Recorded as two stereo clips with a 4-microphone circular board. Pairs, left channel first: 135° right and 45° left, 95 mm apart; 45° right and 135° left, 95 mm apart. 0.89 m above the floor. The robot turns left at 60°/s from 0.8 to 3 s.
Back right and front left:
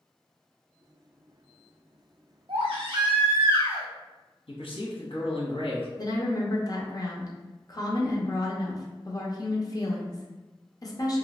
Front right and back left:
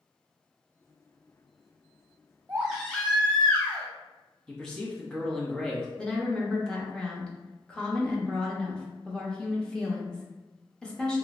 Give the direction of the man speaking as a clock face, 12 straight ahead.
4 o'clock.